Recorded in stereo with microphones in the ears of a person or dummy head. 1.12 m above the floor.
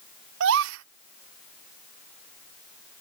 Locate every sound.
0.4 s a gasp: 65° right (ahead or behind)